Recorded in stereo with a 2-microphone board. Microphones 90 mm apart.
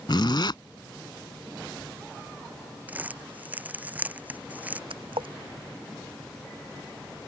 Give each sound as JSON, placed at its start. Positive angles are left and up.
{"t": 0.1, "sound": "a zipper", "side_deg": 60}
{"t": 2.9, "sound": "crumpling", "side_deg": -20}
{"t": 4.9, "sound": "a splash", "side_deg": -75}